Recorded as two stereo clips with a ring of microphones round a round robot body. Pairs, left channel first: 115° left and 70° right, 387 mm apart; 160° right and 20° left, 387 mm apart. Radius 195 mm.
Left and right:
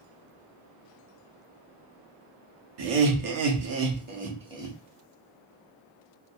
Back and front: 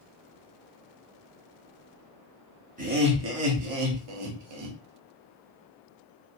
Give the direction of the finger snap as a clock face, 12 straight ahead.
I don't hear a finger snap.